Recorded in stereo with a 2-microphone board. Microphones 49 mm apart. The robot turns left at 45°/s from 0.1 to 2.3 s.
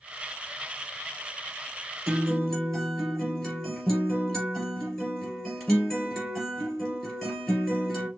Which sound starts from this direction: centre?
A guitar, at 2.1 s.